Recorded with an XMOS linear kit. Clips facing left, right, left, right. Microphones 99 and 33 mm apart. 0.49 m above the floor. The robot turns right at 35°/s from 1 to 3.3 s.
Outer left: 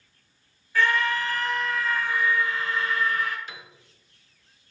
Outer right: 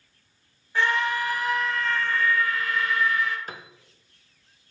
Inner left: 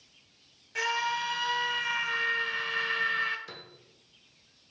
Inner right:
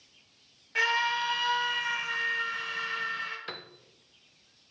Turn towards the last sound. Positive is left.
turn(degrees=-40)  # may be behind; listen again after turning